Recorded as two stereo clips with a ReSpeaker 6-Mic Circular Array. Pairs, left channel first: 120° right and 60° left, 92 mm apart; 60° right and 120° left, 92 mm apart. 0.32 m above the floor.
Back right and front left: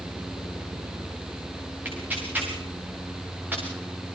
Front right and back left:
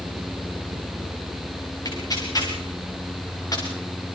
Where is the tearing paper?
10° right, 7 m.